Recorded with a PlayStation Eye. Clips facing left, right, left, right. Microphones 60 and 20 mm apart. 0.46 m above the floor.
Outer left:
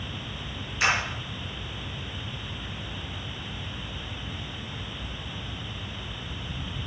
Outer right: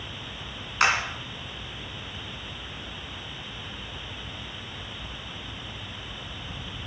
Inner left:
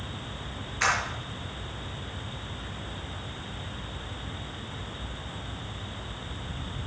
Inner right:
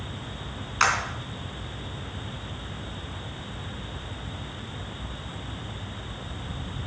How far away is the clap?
About 4 m.